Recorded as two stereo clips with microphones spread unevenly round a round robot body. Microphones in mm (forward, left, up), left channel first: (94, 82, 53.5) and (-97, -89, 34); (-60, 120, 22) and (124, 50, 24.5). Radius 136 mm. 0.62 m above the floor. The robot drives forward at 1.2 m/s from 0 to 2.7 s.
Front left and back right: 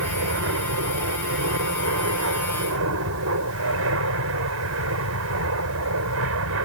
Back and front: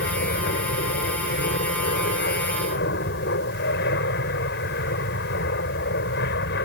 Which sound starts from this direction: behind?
An aircraft, at 0.0 s.